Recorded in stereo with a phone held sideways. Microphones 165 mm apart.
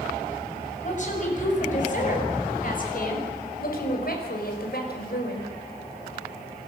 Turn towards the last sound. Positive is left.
turn(degrees=75)  # may be behind; listen again after turning